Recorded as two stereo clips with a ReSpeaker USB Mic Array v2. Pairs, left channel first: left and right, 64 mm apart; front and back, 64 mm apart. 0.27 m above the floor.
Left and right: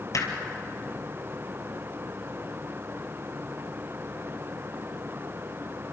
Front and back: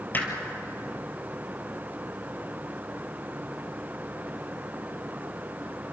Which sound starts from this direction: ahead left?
Hammering, at 0.1 s.